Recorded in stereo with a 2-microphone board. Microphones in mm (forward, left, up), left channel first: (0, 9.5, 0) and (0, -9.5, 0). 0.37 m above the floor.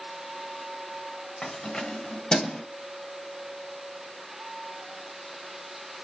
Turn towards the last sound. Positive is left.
turn(degrees=40)  # may be behind; listen again after turning